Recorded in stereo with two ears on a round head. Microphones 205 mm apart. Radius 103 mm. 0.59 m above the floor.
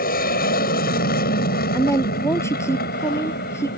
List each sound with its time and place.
0.0 s an aircraft: 40° left (ahead or behind); by 3.8 s 45° left (ahead or behind)
1.7 s a woman speaking: 15° left (ahead or behind)